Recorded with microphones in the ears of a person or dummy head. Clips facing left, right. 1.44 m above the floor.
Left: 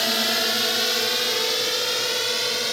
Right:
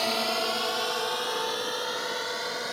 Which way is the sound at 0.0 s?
15° left (ahead or behind).